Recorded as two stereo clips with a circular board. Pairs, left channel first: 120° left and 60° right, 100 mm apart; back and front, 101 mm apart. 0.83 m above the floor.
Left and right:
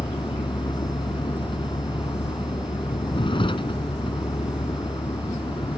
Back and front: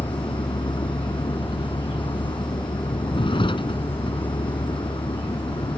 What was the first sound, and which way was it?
A vehicle, 150° left.